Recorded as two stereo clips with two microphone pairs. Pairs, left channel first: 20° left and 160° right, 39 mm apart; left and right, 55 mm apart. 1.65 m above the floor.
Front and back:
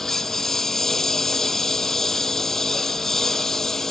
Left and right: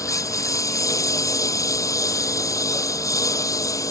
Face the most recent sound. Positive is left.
turn(degrees=95)